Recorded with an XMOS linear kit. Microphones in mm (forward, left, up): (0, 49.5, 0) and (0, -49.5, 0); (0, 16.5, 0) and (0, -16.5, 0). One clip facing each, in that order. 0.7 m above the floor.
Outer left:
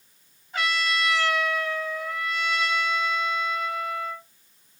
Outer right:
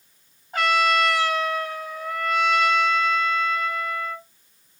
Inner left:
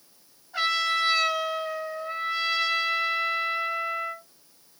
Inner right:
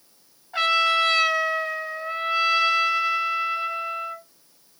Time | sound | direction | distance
0.5 | a trumpet | 50° right (ahead or behind) | 2 m